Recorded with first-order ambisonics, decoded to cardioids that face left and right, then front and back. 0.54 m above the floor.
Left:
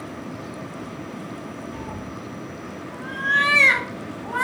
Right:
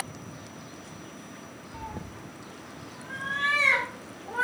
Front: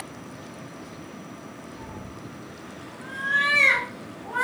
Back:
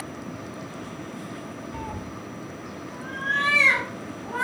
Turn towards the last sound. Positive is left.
turn(degrees=80)